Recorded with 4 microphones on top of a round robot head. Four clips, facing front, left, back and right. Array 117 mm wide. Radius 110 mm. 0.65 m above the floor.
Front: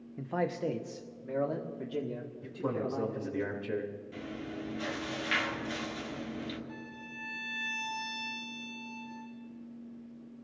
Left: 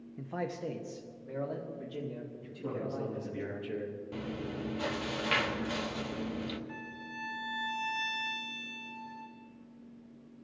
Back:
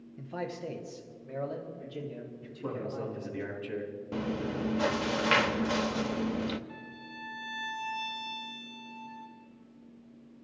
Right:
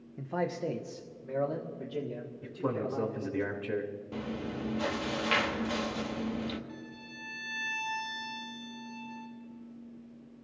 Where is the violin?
80° left, 4 m.